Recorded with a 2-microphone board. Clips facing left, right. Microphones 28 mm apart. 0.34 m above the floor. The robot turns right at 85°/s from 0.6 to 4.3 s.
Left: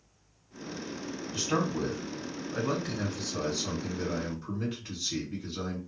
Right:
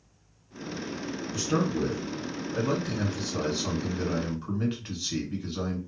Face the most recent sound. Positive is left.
turn(degrees=-60)